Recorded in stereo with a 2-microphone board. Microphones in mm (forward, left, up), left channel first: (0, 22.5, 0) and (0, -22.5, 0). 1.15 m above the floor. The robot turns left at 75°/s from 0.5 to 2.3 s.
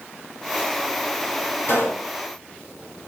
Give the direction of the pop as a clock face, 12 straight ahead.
7 o'clock.